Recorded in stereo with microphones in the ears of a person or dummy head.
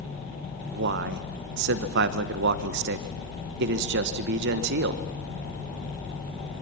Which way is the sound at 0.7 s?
60° right (ahead or behind).